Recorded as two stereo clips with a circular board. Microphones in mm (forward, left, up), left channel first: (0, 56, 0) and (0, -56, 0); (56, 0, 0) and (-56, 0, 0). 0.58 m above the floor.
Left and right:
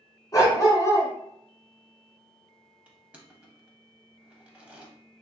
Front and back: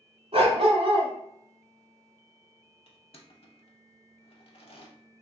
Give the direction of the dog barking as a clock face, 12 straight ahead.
7 o'clock.